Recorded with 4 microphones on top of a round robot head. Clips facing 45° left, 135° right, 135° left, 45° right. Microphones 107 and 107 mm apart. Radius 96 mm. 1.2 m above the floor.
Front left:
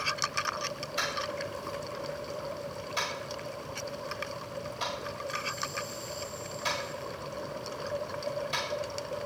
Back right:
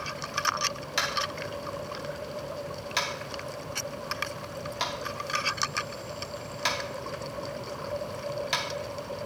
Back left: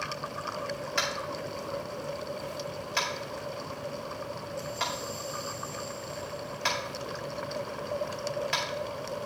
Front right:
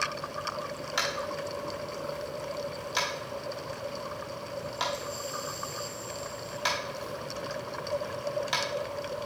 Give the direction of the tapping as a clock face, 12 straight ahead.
4 o'clock.